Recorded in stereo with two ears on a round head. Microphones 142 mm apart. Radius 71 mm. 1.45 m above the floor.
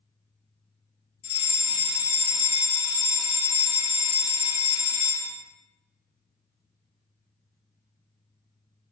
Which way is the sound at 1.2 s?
40° left (ahead or behind).